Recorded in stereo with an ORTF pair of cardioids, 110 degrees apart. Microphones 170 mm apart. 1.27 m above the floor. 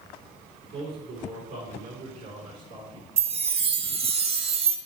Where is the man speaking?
65° right, 3 m; by 3.1 s 75° right, 4.5 m.